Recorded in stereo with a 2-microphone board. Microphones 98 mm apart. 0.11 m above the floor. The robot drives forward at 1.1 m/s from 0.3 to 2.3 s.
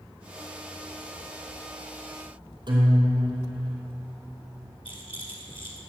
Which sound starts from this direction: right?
A guitar, at 2.7 s.